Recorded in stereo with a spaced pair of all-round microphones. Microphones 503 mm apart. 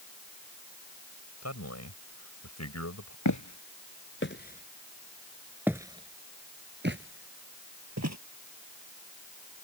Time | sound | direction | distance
1.4 | a man speaking | 30° left (ahead or behind) | ?
3.2 | footsteps | 35° left (ahead or behind) | ?